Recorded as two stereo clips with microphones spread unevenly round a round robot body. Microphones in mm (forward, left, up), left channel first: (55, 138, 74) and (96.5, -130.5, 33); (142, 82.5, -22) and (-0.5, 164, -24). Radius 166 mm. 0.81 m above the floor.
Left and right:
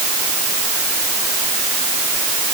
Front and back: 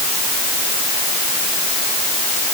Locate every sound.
Only background noise.